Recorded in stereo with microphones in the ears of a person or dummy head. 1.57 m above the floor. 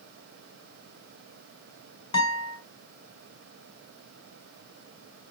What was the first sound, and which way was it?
A guitar, 30° left (ahead or behind).